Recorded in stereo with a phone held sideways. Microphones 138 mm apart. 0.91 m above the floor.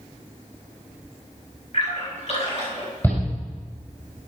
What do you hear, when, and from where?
1.7 s a splash: 50° left (ahead or behind), 6 m
3.0 s a shout: 15° left (ahead or behind), 4.5 m